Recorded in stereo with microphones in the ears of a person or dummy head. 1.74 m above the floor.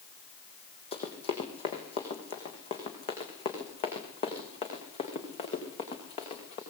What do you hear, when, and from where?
0.9 s running footsteps: 30° left (ahead or behind), 4.5 m; by 6.6 s 35° left (ahead or behind), 8 m